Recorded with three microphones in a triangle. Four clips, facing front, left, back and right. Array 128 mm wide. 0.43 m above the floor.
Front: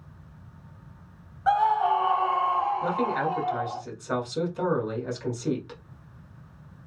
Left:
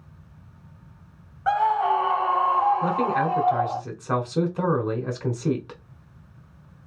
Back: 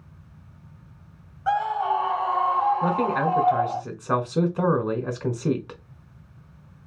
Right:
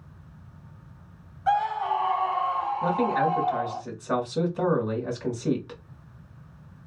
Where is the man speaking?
145° left, 1.4 m.